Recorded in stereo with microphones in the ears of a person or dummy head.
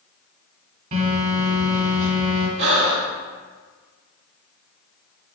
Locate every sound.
0.9 s a phone buzzing: 45° right (ahead or behind), 3.5 m
2.6 s breathing: 70° right (ahead or behind), 2.5 m